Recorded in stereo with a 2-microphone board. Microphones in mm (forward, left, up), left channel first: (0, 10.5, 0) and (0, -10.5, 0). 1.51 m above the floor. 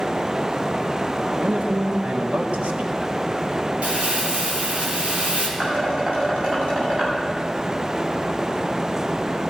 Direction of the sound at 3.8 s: 85° right.